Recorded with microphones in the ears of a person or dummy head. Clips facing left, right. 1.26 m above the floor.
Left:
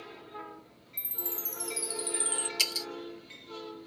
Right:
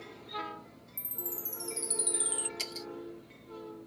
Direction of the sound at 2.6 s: 40° left (ahead or behind).